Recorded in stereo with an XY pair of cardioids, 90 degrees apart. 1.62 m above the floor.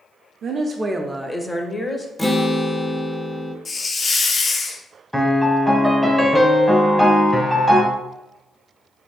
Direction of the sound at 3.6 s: 40° left.